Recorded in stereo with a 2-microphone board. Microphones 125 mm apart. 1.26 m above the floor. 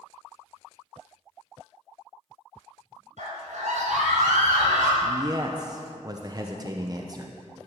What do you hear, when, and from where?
3.2 s a scream: 75° right (ahead or behind), 5 m; by 4.9 s 85° right, 6.5 m
5.0 s a man speaking: 30° right (ahead or behind), 0.8 m